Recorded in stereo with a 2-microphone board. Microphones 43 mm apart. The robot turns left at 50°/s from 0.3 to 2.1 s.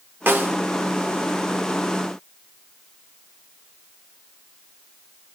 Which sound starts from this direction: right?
A snare drum, at 0.3 s.